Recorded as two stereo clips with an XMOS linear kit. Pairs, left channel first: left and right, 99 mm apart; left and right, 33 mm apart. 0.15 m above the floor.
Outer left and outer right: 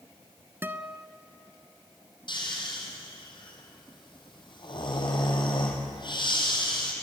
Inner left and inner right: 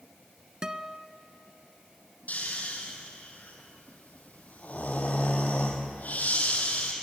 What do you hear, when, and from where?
0.6 s a guitar: 25° right (ahead or behind), 1.0 m
2.3 s snoring: 50° left (ahead or behind), 4.5 m